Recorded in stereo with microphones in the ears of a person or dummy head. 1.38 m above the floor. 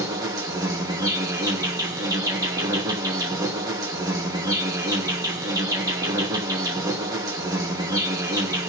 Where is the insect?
15° right (ahead or behind), 0.9 m.